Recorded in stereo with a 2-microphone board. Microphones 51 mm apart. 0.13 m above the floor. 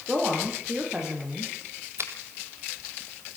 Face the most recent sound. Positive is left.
turn(degrees=-55)  # may be behind; listen again after turning